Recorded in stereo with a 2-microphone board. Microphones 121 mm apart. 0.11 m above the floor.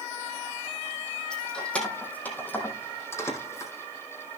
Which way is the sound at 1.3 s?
5° left (ahead or behind).